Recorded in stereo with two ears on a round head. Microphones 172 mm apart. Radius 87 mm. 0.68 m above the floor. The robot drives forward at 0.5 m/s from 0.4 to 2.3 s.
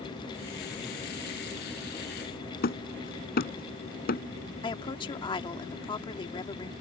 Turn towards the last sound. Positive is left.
turn(degrees=25)  # may be behind; listen again after turning